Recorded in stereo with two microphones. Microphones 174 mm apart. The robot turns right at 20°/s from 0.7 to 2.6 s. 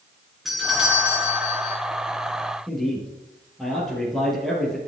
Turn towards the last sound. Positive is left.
turn(degrees=0)  # may be behind; listen again after turning